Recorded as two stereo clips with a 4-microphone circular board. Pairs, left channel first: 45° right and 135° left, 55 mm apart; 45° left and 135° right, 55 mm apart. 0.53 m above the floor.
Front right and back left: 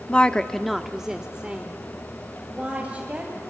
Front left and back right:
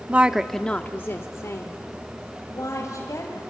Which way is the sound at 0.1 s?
95° right.